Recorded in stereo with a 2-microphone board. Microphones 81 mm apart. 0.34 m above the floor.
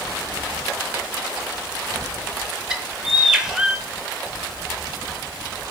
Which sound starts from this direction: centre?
A bird, at 2.7 s.